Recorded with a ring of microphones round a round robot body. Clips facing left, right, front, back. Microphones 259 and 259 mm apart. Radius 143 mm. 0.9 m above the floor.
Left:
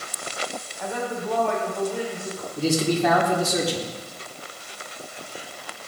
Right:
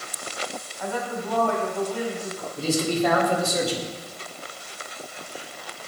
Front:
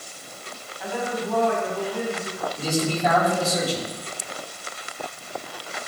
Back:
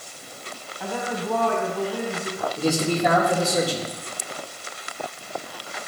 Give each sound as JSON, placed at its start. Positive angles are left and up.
{"t": 0.8, "sound": "a woman speaking", "azimuth_deg": 165, "distance_m": 3.0}
{"t": 2.6, "sound": "a man speaking", "azimuth_deg": 115, "distance_m": 3.0}